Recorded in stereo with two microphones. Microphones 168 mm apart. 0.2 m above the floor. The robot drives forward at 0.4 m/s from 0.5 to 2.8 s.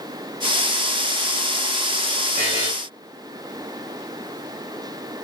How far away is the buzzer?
About 5 m.